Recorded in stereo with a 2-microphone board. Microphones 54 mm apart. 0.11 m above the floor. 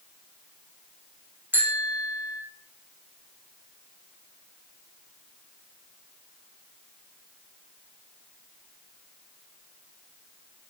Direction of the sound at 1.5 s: 35° right (ahead or behind).